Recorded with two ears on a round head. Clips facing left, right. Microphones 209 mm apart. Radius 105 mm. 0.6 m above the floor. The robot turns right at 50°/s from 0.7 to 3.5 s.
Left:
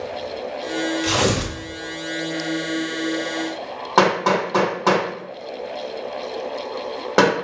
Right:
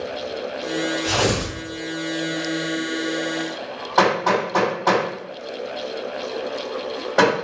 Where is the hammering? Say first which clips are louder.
Left 1 dB; 65° left (ahead or behind), 1.8 m.